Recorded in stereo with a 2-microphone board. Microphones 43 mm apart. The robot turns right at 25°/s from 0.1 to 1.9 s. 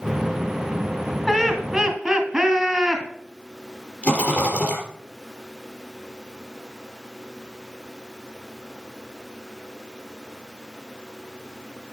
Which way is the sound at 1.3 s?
5° left (ahead or behind).